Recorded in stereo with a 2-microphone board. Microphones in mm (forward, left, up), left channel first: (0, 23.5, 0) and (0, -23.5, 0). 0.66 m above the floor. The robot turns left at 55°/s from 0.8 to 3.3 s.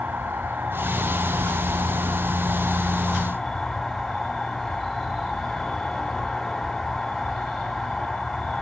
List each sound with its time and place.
0.0 s an insect: 50° right, 3 m; by 8.6 s 175° left, 3 m